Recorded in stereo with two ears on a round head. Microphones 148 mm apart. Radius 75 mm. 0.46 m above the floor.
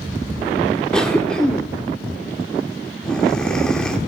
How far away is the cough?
About 1.1 m.